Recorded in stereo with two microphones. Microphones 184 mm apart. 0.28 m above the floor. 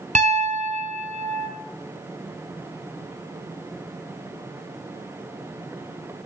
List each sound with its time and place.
0.1 s a piano: 45° right (ahead or behind), 0.6 m